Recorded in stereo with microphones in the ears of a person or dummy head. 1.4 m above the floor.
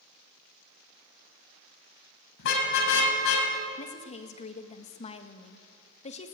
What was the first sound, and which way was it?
A car horn, 65° left (ahead or behind).